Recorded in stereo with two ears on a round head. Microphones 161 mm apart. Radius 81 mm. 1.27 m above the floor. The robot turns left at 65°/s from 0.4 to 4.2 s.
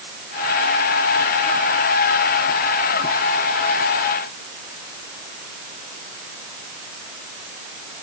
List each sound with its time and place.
Only background noise.